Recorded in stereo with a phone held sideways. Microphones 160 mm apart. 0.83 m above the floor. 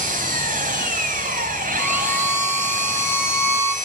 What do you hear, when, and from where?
0.0 s an engine running: 55° right (ahead or behind), 4.5 m
1.8 s a violin: 15° left (ahead or behind), 4.5 m